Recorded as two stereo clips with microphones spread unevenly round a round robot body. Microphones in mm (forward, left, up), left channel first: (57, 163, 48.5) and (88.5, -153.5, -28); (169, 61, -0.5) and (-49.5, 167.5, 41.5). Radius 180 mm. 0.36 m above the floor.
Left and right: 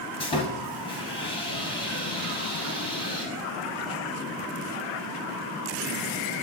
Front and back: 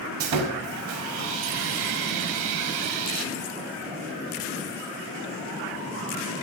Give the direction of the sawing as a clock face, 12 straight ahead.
6 o'clock.